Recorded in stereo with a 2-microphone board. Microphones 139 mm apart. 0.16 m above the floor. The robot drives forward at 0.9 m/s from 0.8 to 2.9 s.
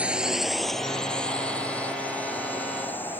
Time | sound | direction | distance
0.0 | a drone | 10° right (ahead or behind) | ?